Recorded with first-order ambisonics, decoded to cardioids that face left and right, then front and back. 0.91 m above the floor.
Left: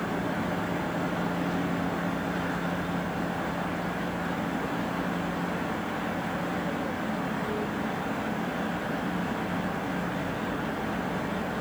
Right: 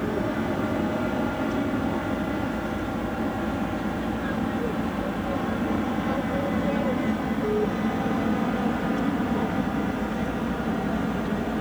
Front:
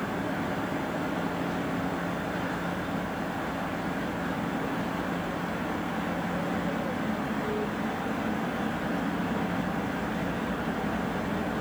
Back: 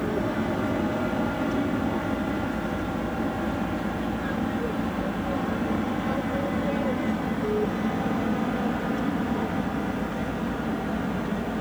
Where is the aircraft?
140° right; by 11.6 s 115° right.